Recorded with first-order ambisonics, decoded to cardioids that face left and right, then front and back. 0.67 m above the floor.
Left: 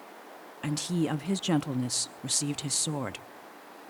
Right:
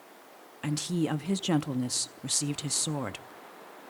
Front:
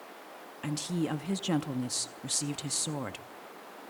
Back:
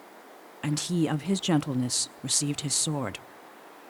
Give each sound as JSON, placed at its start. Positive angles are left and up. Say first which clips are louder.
{"t": 0.6, "sound": "a woman speaking", "louder": "even, back 5 dB", "azimuth_deg": 175, "distance_m": 0.5}